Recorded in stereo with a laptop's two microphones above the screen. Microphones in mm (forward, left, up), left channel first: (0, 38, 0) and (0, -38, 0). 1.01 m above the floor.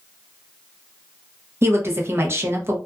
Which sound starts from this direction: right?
A woman speaking, at 1.6 s.